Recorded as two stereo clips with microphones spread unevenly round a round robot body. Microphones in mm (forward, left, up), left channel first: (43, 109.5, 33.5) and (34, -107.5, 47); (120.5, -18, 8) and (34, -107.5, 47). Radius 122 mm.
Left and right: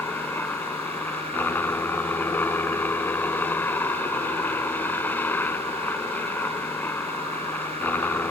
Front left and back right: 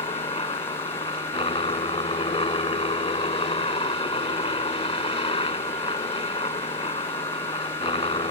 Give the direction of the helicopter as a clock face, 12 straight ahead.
12 o'clock.